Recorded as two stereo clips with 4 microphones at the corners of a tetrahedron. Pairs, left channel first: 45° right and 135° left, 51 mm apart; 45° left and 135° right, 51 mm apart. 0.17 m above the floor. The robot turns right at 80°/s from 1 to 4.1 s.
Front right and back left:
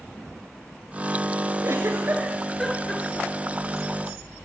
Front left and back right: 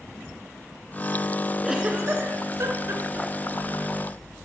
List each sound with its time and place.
1.6 s a giggle: 140° left, 1.1 m; by 3.6 s 65° right, 1.1 m